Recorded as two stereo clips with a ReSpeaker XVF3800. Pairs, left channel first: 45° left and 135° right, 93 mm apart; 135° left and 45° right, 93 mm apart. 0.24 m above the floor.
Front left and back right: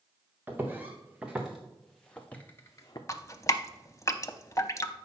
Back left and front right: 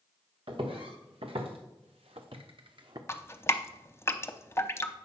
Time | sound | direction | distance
0.5 | footsteps | 65° right | 2 m
3.1 | dripping | 85° left | 0.6 m